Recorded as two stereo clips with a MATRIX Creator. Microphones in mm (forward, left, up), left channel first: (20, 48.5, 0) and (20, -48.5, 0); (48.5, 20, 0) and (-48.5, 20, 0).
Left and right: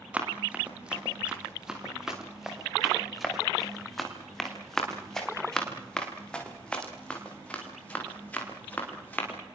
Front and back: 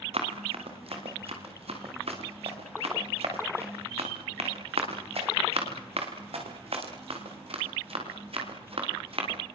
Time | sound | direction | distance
0.1 | running footsteps | 165° right | 7.5 m